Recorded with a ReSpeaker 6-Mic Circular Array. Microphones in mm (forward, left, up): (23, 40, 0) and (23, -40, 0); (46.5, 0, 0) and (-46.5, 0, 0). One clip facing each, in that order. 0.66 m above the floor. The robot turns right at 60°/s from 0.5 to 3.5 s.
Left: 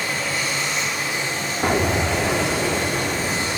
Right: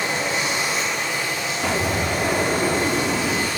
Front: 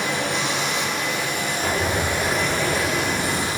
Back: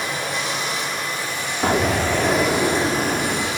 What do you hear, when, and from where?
0.0 s running water: 20° right, 4 m; by 3.6 s 160° left, 4 m
1.6 s an explosion: 140° left, 1.2 m; by 3.5 s 105° right, 1.2 m